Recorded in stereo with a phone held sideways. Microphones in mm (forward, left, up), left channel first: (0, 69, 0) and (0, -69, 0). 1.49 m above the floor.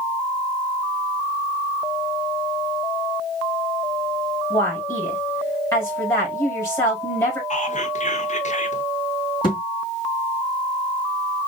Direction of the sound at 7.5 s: 60° left (ahead or behind).